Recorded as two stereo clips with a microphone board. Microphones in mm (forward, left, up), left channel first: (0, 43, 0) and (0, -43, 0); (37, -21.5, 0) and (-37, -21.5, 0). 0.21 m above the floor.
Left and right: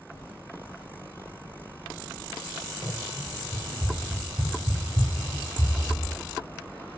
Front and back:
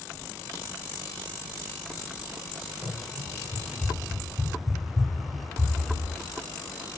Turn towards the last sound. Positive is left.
turn(degrees=-80)